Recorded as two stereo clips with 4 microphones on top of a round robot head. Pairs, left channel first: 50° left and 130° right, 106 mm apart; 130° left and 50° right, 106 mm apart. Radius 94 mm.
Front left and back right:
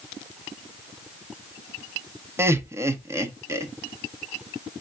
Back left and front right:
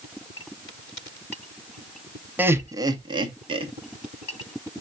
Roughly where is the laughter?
Right.